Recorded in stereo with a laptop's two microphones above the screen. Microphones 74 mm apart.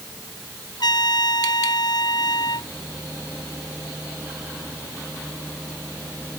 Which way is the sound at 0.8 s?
70° left (ahead or behind).